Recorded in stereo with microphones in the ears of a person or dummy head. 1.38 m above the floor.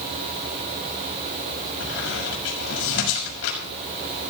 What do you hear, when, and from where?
1.8 s a squeak: 75° left (ahead or behind), 6 m